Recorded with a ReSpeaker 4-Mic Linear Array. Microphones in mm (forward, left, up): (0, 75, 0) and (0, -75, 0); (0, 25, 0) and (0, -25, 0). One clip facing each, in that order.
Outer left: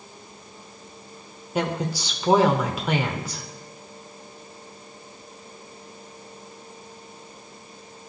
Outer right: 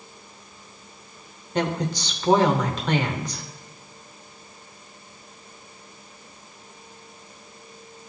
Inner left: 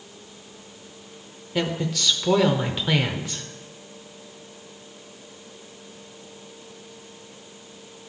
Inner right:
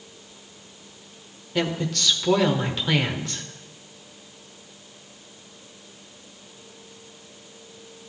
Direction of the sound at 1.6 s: 10° left (ahead or behind).